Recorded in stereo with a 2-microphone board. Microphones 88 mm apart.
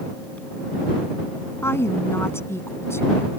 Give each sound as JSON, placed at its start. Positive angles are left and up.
{"t": 1.6, "sound": "a woman speaking", "side_deg": 30}